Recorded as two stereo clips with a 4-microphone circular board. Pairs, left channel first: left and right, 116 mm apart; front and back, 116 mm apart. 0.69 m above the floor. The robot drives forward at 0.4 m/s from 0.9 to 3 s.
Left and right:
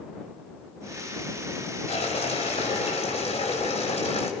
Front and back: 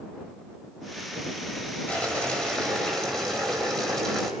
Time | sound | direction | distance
1.9 | boiling | 80° left | 4 m